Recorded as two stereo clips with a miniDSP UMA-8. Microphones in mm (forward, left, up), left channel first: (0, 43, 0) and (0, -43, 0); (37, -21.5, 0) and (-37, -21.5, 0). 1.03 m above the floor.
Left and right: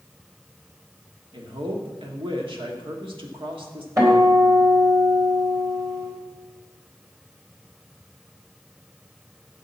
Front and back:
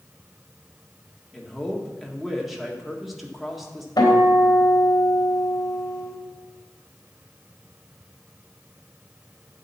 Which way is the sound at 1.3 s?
95° right.